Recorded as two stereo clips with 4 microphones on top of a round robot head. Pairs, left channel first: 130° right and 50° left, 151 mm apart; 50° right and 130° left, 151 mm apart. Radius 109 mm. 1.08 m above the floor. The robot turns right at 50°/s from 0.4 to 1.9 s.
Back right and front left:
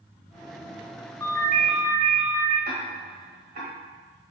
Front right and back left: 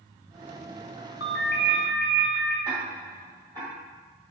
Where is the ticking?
75° left, 1.1 m.